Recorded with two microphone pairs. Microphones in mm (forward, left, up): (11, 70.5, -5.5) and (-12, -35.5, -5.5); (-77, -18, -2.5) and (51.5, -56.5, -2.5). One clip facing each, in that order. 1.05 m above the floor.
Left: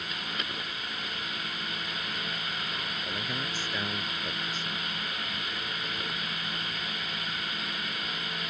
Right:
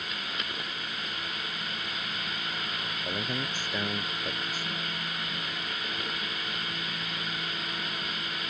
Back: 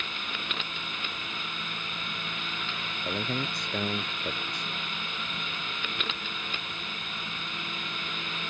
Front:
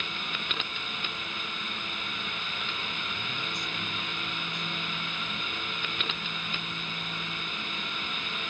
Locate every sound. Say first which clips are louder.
3.0 s a man speaking: right 5 dB, back 6 dB; 175° right; by 4.7 s straight behind